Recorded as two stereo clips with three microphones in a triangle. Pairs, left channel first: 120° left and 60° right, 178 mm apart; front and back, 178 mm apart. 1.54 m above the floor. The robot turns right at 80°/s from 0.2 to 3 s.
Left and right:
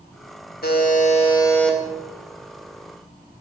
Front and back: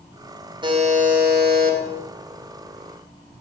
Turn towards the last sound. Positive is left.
turn(degrees=-50)